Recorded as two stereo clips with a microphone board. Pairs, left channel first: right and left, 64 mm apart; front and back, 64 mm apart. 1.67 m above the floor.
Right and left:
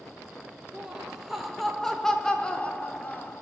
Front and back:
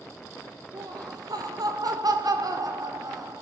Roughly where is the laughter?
Behind.